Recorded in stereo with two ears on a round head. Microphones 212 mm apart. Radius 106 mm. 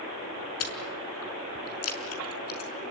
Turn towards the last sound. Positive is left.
turn(degrees=65)  # may be behind; listen again after turning